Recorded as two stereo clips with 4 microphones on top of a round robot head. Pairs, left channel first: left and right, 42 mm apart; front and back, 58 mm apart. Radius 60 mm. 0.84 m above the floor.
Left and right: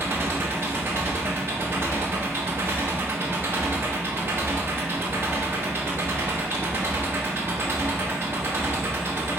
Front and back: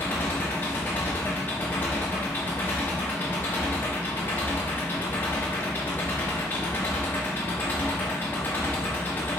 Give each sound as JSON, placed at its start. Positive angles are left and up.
{"t": 0.0, "sound": "an engine running", "azimuth_deg": -60, "distance_m": 0.9}